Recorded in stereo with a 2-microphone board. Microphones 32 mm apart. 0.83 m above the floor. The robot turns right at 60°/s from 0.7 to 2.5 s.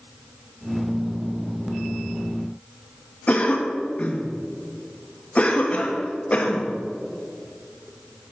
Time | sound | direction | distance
3.3 | a cough | 40° left (ahead or behind) | 1.2 m